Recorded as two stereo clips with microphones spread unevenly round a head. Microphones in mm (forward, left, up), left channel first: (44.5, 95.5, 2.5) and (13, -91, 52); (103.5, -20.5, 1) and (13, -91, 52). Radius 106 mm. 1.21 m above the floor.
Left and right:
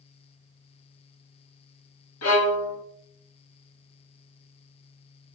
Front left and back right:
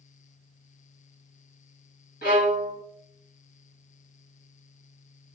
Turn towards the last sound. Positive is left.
turn(degrees=90)